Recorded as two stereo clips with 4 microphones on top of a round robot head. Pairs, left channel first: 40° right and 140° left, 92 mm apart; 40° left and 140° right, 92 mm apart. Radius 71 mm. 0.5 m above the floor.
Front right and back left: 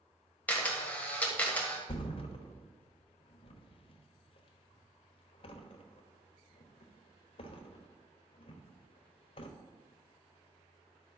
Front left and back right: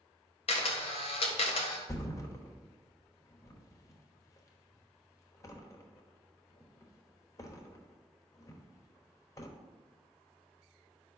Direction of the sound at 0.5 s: 35° left.